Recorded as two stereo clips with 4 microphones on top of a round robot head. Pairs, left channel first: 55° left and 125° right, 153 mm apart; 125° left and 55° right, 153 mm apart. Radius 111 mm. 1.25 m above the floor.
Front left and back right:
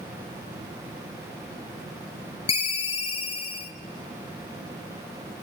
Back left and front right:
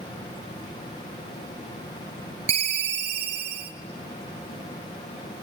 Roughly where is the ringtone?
Ahead.